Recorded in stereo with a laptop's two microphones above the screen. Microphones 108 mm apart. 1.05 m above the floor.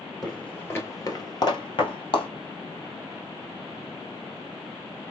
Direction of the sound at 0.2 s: Centre (ahead or behind).